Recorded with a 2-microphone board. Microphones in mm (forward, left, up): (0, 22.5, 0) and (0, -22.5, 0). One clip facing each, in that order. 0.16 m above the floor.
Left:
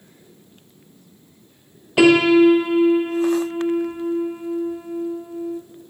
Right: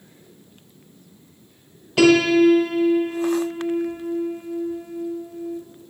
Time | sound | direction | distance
2.0 | a piano | 20° left (ahead or behind) | 0.6 m